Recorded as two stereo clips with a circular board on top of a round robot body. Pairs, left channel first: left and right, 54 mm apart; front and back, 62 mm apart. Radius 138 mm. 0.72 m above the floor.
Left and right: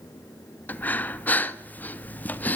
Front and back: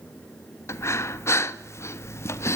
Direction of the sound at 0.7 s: 35° left.